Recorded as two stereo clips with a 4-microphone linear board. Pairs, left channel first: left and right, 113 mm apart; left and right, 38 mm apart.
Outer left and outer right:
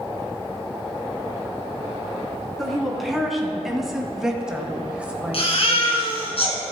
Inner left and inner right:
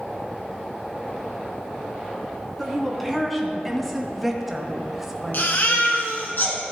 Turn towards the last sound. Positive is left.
turn(degrees=60)  # may be behind; listen again after turning